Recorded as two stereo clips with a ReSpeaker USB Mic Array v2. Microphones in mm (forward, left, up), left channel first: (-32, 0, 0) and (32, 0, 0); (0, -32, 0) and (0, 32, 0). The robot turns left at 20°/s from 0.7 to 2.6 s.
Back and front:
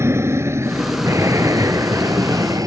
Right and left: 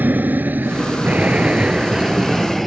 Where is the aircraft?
35° left; by 2.7 s straight ahead.